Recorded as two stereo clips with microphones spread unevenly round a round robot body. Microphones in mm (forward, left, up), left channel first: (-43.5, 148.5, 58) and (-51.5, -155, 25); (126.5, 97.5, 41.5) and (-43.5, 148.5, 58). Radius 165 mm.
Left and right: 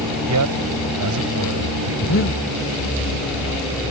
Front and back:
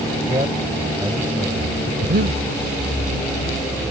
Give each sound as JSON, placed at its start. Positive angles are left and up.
{"t": 0.3, "sound": "a man speaking", "azimuth_deg": -125}
{"t": 2.0, "sound": "breathing", "azimuth_deg": 140}